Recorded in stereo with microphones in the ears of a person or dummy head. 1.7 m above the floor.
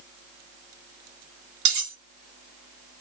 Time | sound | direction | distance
1.6 | cutlery clinking | 40° right (ahead or behind) | 1.5 m